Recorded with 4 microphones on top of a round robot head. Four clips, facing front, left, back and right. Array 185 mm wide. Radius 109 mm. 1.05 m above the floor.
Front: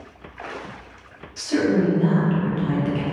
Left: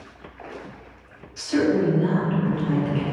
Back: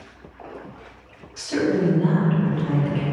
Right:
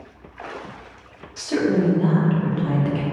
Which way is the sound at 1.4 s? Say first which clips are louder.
Even, front 2 dB; 85° right.